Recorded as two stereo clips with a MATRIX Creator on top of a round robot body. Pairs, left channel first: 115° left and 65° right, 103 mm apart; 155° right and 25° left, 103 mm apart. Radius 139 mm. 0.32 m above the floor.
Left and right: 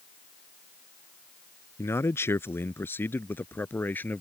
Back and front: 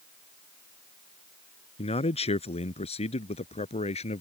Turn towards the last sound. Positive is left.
turn(degrees=-175)